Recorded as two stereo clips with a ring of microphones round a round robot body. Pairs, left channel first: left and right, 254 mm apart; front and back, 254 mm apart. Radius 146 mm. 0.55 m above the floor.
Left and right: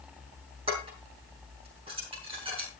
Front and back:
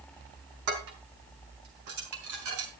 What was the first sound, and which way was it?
Dishes clattering, 160° right.